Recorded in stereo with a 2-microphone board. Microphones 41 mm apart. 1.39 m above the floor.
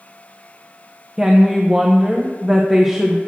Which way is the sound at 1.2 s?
10° right (ahead or behind).